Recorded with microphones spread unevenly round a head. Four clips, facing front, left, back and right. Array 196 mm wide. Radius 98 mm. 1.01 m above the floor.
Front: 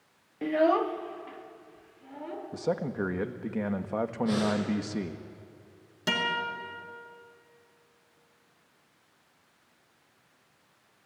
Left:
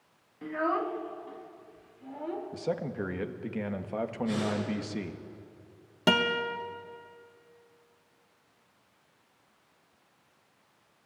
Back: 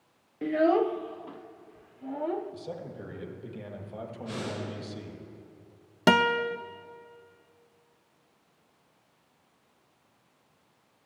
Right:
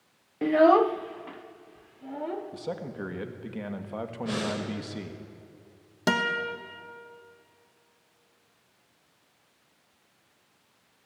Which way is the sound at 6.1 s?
Straight behind.